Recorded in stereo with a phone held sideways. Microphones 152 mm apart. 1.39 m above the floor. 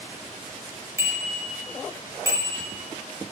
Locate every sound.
1.0 s a bicycle bell: 20° right (ahead or behind), 5 m